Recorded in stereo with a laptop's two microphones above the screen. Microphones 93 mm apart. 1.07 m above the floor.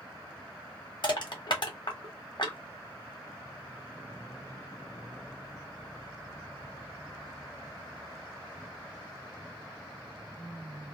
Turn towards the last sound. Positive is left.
turn(degrees=55)  # may be behind; listen again after turning